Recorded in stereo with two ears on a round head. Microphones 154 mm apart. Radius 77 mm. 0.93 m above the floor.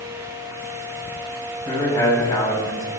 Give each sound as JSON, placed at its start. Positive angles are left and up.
{"t": 1.6, "sound": "a man speaking", "side_deg": 20, "distance_m": 7.0}